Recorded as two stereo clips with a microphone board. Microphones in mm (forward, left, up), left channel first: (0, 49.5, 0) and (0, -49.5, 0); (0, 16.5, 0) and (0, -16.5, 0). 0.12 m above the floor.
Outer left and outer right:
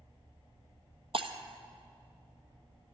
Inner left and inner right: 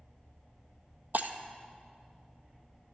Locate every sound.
1.1 s breaking glass: 65° right (ahead or behind), 1.2 m